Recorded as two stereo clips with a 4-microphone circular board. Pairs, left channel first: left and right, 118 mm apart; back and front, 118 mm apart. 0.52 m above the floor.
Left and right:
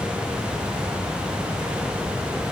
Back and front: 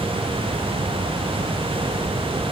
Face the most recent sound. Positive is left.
No sound to turn to.